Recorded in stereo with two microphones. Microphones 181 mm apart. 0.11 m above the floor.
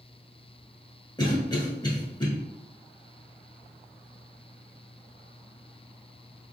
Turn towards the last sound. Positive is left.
turn(degrees=20)  # may be behind; listen again after turning